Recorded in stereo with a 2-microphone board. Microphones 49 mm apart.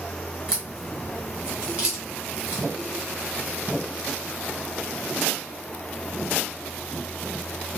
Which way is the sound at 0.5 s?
20° right (ahead or behind).